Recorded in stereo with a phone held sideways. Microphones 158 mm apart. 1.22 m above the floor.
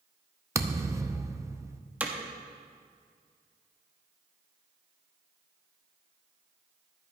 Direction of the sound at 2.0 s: 10° right (ahead or behind).